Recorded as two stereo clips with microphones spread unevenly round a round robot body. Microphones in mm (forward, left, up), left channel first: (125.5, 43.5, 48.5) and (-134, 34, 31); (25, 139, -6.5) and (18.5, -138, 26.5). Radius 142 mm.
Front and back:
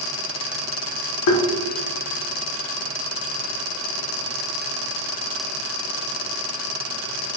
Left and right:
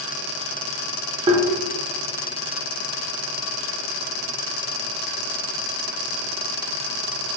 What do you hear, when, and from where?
1.3 s tapping: 20° right, 0.6 m